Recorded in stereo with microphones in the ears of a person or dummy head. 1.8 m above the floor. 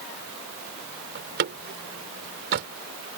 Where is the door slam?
60° right (ahead or behind).